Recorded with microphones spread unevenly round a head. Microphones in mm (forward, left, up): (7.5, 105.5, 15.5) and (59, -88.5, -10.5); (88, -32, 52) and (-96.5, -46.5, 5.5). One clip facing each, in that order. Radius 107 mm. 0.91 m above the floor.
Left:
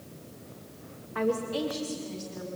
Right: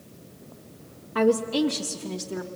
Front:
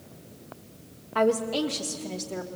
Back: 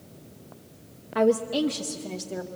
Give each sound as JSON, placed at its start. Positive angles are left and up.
{"t": 1.1, "sound": "a woman speaking", "azimuth_deg": -105, "distance_m": 1.2}